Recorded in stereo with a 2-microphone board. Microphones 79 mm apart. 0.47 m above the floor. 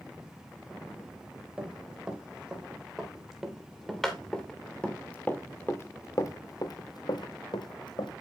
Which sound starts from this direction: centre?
Running footsteps, at 1.6 s.